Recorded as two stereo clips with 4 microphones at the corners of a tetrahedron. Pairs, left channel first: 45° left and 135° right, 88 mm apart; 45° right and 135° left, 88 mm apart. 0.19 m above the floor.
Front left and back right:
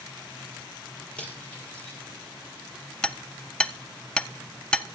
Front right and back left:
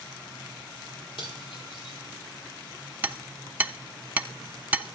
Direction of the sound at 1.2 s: 30° right.